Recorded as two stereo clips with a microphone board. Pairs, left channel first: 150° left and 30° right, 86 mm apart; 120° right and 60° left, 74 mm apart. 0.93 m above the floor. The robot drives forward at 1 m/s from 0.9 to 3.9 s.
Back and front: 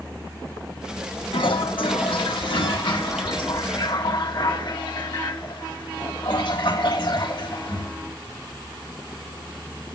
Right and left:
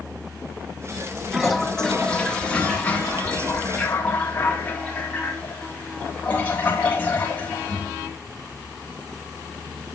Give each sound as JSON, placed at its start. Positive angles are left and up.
{"t": 1.3, "sound": "a toilet flushing", "azimuth_deg": 145, "distance_m": 0.7}